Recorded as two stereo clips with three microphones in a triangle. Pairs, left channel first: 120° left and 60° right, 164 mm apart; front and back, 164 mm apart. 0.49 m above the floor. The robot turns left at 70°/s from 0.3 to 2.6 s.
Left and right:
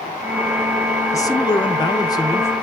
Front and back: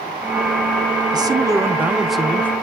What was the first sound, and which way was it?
A man speaking, 160° left.